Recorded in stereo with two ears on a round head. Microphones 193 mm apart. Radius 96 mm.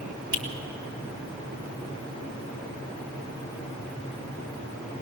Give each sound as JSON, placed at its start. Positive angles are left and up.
{"t": 0.3, "sound": "a finger snap", "side_deg": -20, "distance_m": 2.0}